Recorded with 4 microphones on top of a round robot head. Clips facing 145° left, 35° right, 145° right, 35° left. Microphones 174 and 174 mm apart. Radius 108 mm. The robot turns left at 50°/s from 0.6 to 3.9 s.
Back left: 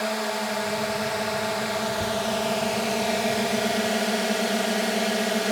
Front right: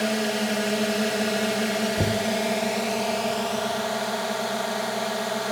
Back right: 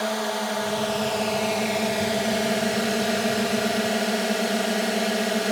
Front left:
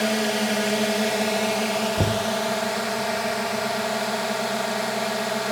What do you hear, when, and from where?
0.0 s a drone: 10° right; by 5.5 s 175° right
2.0 s knocking: 5° left; by 2.3 s 10° right